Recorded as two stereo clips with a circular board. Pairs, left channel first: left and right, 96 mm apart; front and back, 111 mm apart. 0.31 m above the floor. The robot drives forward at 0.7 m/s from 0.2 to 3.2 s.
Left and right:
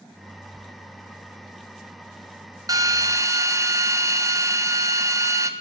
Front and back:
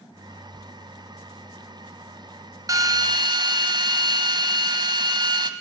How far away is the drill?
About 1.5 m.